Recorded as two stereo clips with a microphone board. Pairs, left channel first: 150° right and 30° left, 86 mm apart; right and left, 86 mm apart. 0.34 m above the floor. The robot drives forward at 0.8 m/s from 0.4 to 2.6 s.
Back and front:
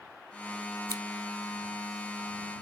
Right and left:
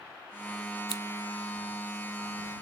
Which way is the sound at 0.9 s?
75° left.